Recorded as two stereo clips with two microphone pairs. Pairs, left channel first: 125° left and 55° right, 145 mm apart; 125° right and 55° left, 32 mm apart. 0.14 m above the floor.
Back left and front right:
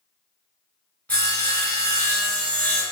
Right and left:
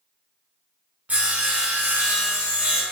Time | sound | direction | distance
1.1 | sawing | 50° left | 1.0 m